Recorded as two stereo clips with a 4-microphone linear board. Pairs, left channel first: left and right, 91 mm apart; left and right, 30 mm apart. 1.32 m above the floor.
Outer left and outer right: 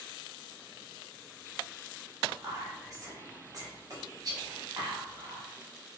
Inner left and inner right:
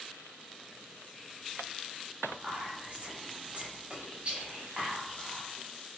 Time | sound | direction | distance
2.2 | whispering | 40° right (ahead or behind) | 1.0 m